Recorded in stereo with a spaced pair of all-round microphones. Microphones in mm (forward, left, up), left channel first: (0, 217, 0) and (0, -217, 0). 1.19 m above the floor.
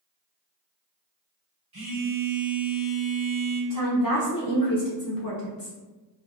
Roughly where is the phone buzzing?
Right.